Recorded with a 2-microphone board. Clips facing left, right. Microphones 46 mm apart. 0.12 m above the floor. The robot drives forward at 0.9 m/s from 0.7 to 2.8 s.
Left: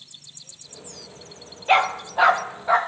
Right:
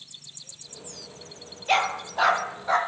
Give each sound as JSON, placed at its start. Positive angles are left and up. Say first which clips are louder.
{"t": 1.7, "sound": "a dog barking", "louder": "left 5 dB", "side_deg": 20, "distance_m": 0.8}